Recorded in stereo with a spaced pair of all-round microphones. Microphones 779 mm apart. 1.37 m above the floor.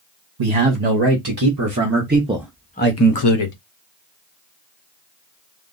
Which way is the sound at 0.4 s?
45° right (ahead or behind).